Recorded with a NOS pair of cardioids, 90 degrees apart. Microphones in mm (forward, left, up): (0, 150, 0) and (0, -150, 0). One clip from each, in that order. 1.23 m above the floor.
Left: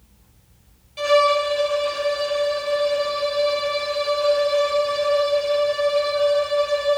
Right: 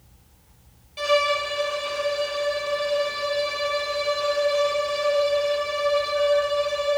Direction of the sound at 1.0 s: 5° left.